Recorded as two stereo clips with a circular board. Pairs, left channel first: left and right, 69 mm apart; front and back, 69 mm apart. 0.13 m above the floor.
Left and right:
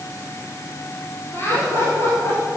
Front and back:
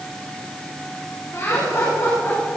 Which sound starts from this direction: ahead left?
Laughter, at 1.3 s.